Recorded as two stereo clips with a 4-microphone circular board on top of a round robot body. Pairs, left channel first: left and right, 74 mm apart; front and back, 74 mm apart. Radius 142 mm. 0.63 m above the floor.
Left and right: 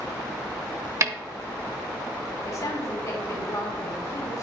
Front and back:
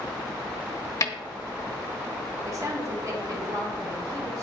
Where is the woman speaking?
135° left, 2.5 m.